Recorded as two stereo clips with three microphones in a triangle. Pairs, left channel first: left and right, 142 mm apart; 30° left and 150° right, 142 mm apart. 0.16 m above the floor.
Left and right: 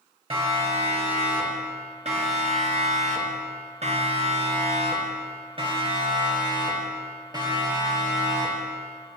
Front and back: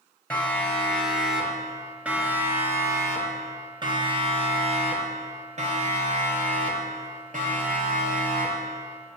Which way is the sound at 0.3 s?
50° right.